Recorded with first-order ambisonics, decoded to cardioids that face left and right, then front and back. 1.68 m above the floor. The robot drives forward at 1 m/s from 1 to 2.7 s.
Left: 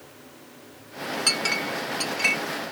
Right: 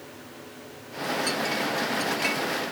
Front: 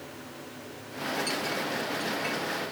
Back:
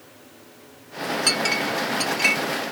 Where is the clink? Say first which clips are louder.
Left 6 dB, back 9 dB; 140° left; by 2.4 s 150° left.